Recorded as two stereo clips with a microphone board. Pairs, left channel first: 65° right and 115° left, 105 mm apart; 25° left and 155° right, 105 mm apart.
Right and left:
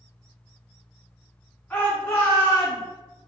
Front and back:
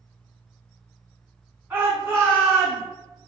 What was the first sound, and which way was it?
A shout, 125° right.